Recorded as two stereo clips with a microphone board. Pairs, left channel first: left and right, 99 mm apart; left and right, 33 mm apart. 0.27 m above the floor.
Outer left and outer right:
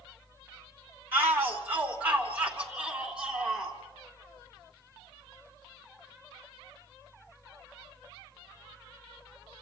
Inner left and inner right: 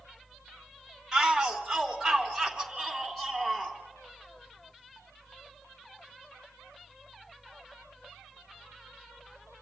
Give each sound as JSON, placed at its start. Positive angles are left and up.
{"t": 1.1, "sound": "a shout", "side_deg": -20, "distance_m": 2.5}